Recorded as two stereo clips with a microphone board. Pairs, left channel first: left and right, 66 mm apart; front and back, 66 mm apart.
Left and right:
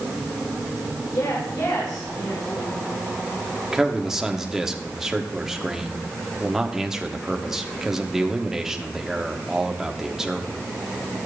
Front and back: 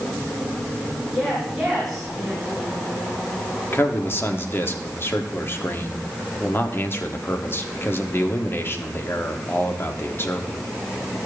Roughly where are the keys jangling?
No keys jangling in this recording.